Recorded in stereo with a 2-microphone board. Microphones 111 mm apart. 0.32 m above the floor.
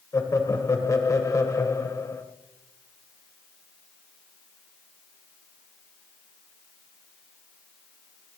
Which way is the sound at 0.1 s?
30° left (ahead or behind).